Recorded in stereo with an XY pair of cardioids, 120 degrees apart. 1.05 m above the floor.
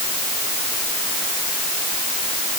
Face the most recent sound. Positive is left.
No sound to turn to.